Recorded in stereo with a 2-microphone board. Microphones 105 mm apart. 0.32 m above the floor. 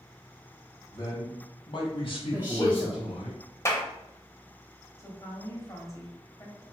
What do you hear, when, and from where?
0.9 s a man speaking: 40° left (ahead or behind), 1.1 m; by 3.3 s 70° left (ahead or behind), 2.5 m
2.3 s a woman speaking: 20° right (ahead or behind), 1.0 m
3.6 s a clap: 25° left (ahead or behind), 0.7 m
5.0 s a woman speaking: 30° left (ahead or behind), 1.3 m